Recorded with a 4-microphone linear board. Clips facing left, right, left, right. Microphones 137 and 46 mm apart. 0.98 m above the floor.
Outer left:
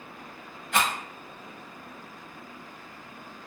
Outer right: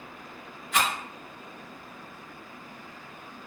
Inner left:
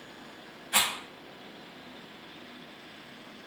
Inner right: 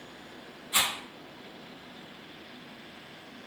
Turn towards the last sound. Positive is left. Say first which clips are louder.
# outer left 1 dB, inner left 1 dB
turn(degrees=65)  # may be behind; listen again after turning